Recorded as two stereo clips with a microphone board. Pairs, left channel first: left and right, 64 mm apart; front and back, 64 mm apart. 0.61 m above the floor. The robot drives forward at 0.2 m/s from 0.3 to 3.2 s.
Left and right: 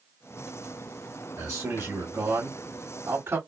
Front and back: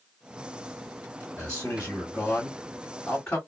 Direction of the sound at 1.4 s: 60° right.